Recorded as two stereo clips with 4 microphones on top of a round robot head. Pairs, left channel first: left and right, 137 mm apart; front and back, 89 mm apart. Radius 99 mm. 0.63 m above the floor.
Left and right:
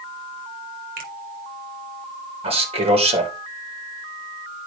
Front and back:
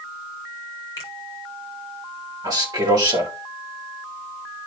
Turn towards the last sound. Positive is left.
turn(degrees=-130)